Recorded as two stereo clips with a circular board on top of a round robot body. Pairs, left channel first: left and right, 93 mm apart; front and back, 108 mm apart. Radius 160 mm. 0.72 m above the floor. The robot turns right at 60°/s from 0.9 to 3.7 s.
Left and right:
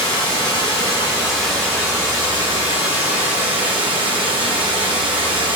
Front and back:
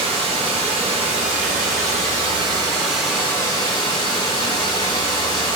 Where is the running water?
140° left, 1.1 m; by 5.6 s 55° right, 1.1 m.